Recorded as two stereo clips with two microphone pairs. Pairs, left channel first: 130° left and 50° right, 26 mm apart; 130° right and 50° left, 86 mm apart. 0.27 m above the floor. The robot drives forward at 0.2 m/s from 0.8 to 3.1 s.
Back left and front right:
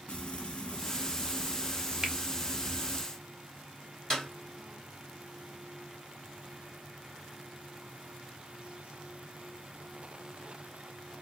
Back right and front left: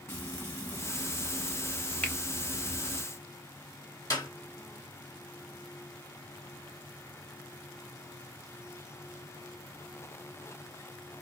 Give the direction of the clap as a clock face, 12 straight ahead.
6 o'clock.